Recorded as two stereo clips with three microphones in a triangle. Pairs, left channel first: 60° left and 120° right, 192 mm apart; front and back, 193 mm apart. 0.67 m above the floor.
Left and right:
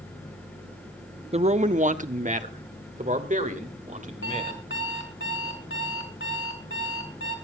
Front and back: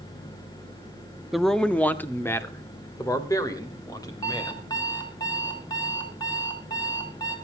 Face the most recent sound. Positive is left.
turn(degrees=70)